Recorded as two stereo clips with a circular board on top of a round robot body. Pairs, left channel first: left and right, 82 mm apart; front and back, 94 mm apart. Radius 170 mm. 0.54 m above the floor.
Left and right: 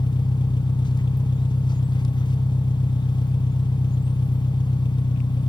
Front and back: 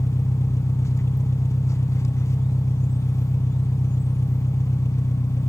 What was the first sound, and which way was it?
An engine running, 60° left.